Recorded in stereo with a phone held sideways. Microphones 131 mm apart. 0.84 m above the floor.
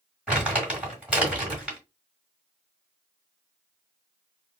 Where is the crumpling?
10° right (ahead or behind), 2.5 m.